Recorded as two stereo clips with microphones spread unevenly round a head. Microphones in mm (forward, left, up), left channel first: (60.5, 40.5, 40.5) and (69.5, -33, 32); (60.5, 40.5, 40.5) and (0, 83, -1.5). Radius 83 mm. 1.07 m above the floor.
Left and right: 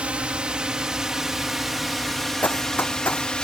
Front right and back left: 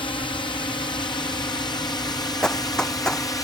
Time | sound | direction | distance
0.0 | a drone | 15° right | ?
2.4 | running footsteps | 35° left | ?